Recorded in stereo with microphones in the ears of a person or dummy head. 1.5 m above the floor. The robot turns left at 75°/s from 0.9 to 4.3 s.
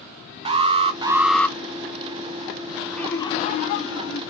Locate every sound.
0.5 s an alarm: 145° right, 0.8 m; by 1.6 s 165° left, 0.8 m
2.9 s laughter: straight behind, 1.4 m; by 4.2 s 80° left, 1.4 m